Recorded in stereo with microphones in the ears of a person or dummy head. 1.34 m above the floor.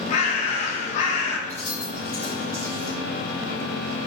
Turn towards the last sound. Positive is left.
turn(degrees=10)  # may be behind; listen again after turning